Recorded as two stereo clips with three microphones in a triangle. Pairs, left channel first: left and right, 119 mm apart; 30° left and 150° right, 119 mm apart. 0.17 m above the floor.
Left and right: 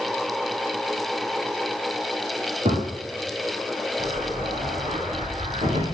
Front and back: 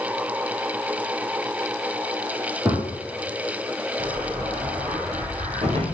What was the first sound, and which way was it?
A gunshot, 80° right.